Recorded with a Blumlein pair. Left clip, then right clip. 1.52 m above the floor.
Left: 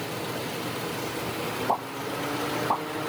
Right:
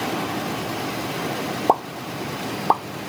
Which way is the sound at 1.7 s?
55° right.